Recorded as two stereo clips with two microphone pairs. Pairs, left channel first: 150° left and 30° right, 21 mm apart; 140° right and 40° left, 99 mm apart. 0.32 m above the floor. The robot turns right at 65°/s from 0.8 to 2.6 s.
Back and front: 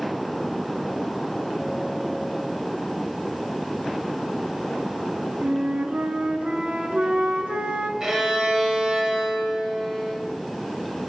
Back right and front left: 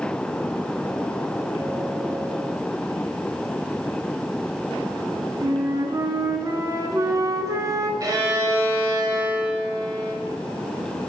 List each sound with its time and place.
5.4 s a flute: 15° right, 0.7 m
8.0 s a violin: 15° left, 1.4 m